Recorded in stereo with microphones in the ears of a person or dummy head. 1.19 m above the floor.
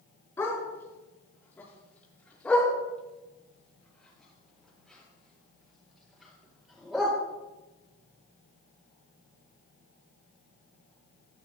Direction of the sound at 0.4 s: 15° left (ahead or behind).